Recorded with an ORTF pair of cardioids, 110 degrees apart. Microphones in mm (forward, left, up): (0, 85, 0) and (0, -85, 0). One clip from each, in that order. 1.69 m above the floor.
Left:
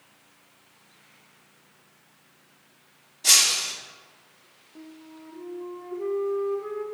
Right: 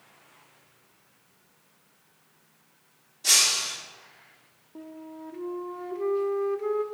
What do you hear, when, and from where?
3.2 s breaking glass: 20° left, 2.5 m
4.8 s a flute: 25° right, 0.6 m